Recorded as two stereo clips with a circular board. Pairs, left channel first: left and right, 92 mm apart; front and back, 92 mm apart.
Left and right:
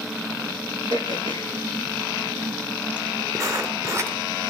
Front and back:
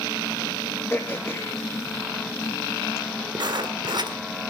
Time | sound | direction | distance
0.9 | throat clearing | 60° right | 3 m
3.4 | writing | 145° right | 2.0 m